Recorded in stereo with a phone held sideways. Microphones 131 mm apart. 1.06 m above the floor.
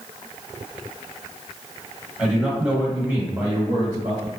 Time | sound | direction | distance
2.2 | a man speaking | centre (ahead or behind) | 1.2 m